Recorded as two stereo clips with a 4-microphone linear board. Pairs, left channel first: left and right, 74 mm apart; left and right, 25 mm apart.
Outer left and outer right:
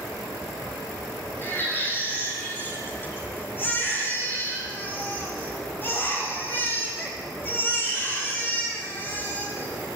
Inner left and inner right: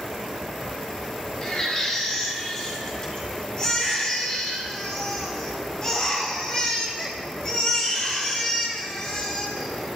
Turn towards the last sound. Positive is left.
turn(degrees=30)  # may be behind; listen again after turning